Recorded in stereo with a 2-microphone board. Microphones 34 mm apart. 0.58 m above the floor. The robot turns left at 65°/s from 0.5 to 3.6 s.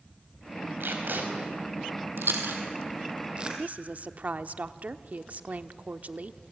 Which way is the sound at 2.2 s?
70° right (ahead or behind).